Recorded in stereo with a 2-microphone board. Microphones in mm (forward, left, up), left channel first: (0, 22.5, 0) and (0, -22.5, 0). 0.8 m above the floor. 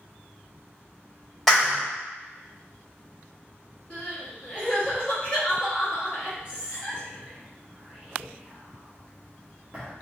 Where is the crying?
25° left (ahead or behind), 1.1 m.